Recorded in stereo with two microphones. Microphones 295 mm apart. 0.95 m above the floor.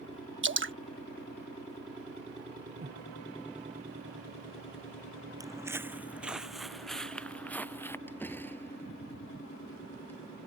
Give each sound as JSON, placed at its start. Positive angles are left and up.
{"t": 0.4, "sound": "dripping", "side_deg": -40}
{"t": 2.8, "sound": "breathing", "side_deg": -30}
{"t": 5.4, "sound": "footsteps", "side_deg": -10}
{"t": 8.1, "sound": "a door slam", "side_deg": 5}